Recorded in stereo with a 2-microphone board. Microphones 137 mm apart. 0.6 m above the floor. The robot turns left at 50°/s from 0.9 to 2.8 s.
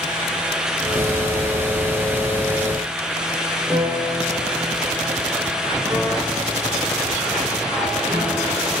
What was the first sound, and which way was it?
A piano, 20° right (ahead or behind).